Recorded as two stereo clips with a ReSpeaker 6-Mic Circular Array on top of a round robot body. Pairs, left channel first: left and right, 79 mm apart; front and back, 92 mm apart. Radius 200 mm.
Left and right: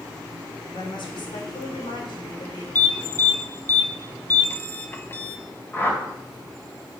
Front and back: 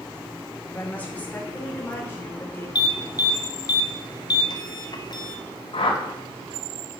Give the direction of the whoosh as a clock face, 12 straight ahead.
11 o'clock.